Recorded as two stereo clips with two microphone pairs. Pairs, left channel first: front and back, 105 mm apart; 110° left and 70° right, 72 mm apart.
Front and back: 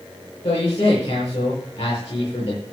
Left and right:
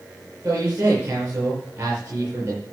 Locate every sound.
0.4 s a man speaking: 10° right, 7.5 m